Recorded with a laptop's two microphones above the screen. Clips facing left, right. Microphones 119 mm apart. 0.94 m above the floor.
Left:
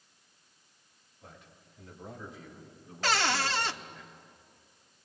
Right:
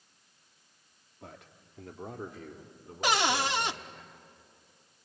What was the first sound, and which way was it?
A man speaking, 70° right (ahead or behind).